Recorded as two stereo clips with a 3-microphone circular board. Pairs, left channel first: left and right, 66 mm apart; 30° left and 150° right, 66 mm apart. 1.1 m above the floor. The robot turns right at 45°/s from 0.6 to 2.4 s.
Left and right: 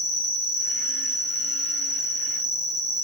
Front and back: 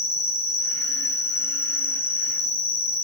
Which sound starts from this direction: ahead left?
An insect, at 0.0 s.